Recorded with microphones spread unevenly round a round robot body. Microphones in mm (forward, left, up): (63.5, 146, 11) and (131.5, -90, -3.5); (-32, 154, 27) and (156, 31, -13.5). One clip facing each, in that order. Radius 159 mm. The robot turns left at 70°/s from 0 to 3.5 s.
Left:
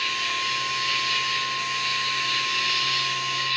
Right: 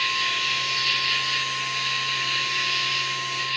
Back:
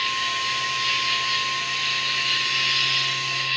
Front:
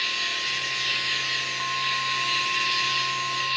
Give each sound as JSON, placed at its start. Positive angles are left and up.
{"t": 0.0, "sound": "an insect", "azimuth_deg": -35, "distance_m": 1.3}